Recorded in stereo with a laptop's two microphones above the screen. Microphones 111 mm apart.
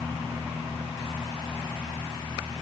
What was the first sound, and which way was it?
Only background noise.